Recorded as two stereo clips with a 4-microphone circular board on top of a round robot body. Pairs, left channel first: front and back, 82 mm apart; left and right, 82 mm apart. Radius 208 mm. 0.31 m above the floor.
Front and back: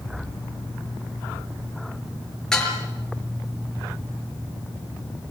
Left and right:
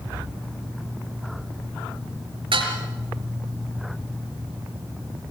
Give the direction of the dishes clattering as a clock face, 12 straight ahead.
3 o'clock.